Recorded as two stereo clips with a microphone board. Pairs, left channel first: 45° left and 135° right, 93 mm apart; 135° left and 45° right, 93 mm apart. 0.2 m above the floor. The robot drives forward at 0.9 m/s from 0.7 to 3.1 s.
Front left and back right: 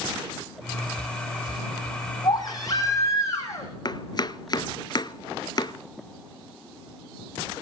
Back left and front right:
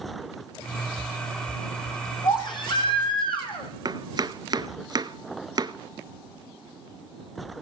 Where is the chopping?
Straight ahead, 0.6 m.